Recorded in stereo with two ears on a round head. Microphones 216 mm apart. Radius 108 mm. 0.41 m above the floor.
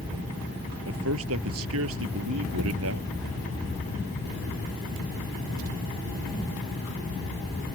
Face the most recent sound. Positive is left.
turn(degrees=-60)  # may be behind; listen again after turning